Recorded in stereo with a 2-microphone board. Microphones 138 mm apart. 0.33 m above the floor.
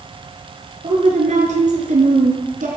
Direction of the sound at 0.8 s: 55° right (ahead or behind).